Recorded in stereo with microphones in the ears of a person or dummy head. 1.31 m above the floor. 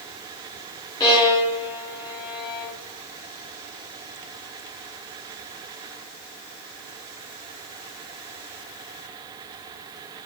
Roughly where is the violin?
Left.